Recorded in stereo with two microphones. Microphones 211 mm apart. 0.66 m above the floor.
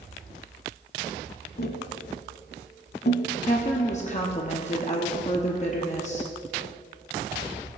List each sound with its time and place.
1.6 s tapping: 55° left (ahead or behind), 0.8 m
3.4 s a woman speaking: 35° left (ahead or behind), 1.0 m